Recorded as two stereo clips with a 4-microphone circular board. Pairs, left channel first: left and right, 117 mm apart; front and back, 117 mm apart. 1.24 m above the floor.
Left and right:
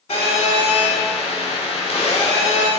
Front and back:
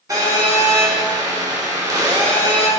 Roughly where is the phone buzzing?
Behind left.